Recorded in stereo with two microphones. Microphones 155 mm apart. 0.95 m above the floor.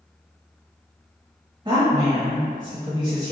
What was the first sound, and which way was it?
A woman speaking, 25° right (ahead or behind).